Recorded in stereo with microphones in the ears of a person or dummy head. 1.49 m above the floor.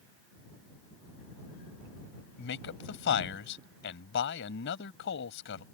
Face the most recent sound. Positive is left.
turn(degrees=70)  # may be behind; listen again after turning